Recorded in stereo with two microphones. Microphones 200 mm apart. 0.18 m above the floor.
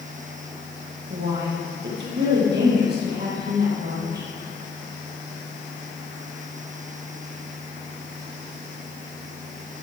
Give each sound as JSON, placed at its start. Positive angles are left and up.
{"t": 1.1, "sound": "a woman speaking", "side_deg": -65, "distance_m": 4.5}